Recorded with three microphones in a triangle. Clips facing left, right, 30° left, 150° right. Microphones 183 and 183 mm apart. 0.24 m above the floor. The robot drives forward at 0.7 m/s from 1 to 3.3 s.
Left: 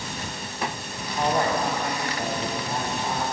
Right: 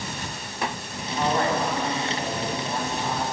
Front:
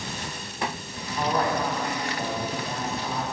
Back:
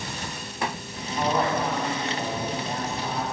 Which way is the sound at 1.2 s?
130° left.